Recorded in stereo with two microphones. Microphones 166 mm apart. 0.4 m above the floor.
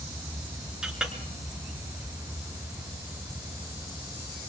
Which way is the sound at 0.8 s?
5° right (ahead or behind).